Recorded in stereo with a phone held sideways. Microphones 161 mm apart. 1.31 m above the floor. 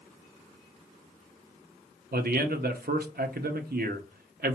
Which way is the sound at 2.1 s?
80° right.